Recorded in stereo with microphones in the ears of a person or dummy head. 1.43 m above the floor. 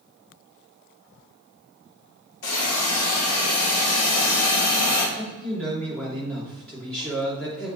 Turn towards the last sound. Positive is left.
turn(degrees=5)  # may be behind; listen again after turning